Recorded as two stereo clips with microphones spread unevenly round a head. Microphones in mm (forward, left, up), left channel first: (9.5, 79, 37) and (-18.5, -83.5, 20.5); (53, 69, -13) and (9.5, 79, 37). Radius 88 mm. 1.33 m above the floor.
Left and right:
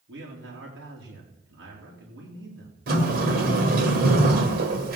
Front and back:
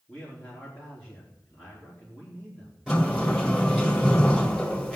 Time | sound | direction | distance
0.1 | a man speaking | 95° right | 4 m
2.9 | a sliding door | 135° right | 2 m